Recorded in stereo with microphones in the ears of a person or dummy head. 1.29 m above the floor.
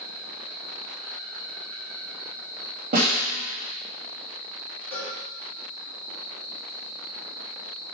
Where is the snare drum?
35° right (ahead or behind), 2.5 m.